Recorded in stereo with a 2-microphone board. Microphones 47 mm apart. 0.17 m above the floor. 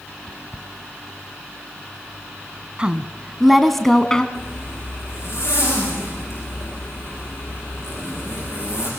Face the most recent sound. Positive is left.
turn(degrees=75)  # may be behind; listen again after turning